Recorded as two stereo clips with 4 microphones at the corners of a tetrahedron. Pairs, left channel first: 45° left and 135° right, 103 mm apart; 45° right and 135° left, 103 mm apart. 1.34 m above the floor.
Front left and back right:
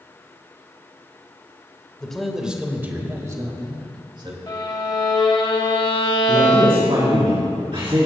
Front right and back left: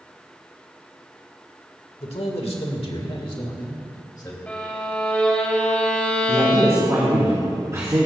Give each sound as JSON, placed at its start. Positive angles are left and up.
{"t": 2.0, "sound": "a man speaking", "azimuth_deg": -40, "distance_m": 1.6}
{"t": 4.5, "sound": "a violin", "azimuth_deg": 30, "distance_m": 1.5}
{"t": 6.3, "sound": "a man speaking", "azimuth_deg": -165, "distance_m": 4.0}